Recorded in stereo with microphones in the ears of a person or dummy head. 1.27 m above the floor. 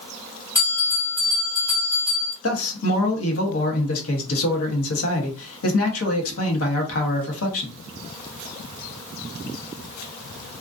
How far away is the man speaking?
About 1.0 m.